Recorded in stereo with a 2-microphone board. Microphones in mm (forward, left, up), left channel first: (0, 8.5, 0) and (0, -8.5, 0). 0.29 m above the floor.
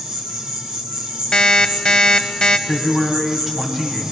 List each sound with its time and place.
0.0 s an insect: 55° right (ahead or behind), 3 m
1.3 s an alarm clock: 45° left (ahead or behind), 1.0 m
2.7 s a man speaking: 25° right (ahead or behind), 2.5 m